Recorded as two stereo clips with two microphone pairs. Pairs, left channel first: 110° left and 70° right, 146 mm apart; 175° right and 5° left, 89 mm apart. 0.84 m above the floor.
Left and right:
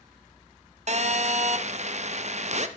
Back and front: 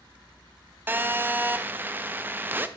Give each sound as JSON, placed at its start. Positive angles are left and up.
{"t": 0.9, "sound": "a phone buzzing", "azimuth_deg": -60, "distance_m": 0.6}